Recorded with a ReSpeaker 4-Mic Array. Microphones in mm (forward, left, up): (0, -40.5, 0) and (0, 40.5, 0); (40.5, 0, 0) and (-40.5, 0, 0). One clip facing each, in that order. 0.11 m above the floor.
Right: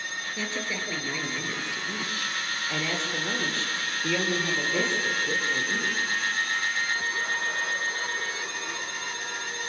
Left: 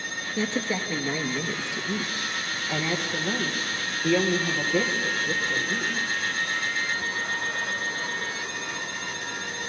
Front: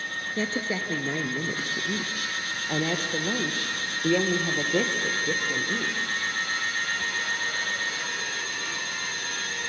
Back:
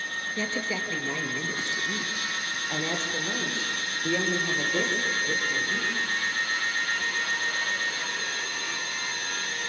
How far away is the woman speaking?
About 1.9 m.